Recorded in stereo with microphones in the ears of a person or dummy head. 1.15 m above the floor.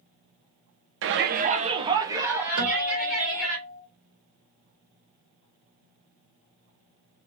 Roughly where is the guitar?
Right.